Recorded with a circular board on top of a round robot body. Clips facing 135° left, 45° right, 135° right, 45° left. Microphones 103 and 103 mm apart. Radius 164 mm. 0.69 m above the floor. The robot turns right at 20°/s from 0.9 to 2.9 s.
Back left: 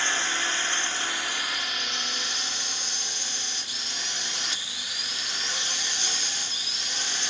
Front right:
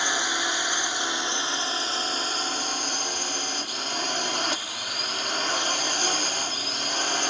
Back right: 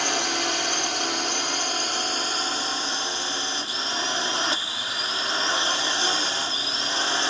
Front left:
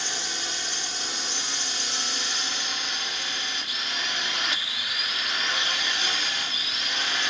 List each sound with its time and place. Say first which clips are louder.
0.0 s a drone: front right 2 dB, back right 9 dB; 120° right; by 7.3 s 80° right